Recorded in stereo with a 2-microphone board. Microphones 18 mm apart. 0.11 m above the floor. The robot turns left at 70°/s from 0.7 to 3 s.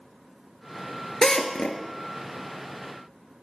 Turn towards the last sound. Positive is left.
turn(degrees=-15)